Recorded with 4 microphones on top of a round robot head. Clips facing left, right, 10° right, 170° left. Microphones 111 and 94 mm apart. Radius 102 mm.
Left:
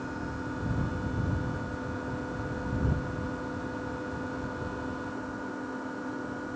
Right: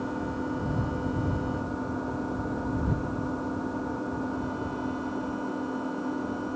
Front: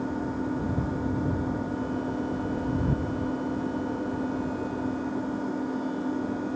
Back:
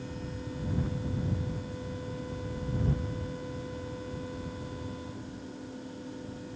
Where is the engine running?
20° right.